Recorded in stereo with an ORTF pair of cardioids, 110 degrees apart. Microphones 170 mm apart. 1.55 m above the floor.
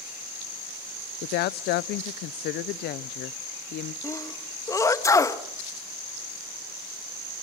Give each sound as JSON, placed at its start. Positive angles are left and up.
{"t": 1.2, "sound": "a woman speaking", "azimuth_deg": 70, "distance_m": 0.7}
{"t": 4.0, "sound": "a sneeze", "azimuth_deg": 20, "distance_m": 1.6}